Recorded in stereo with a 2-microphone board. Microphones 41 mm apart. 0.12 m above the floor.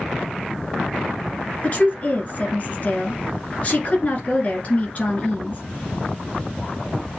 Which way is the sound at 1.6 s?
35° left (ahead or behind).